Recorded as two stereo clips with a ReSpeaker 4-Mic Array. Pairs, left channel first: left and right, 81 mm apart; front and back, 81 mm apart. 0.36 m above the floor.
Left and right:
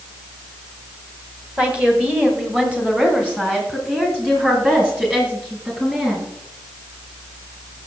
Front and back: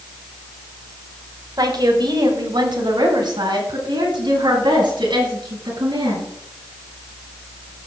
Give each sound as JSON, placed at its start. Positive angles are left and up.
{"t": 1.6, "sound": "a woman speaking", "azimuth_deg": -165, "distance_m": 1.7}